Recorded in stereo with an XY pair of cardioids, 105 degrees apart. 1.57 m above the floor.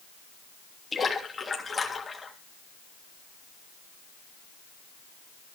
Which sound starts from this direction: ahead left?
A splash, at 0.9 s.